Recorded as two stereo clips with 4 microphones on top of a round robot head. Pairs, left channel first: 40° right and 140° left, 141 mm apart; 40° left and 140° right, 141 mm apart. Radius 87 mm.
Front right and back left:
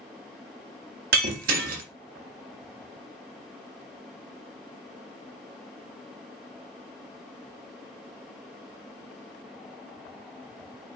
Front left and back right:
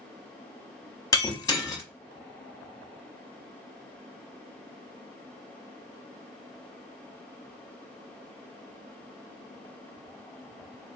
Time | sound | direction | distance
1.1 | breaking glass | 105° left | 0.8 m